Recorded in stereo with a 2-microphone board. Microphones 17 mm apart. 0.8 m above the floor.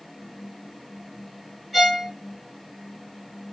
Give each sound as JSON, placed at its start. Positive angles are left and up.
{"t": 1.7, "sound": "a violin", "side_deg": -10, "distance_m": 0.9}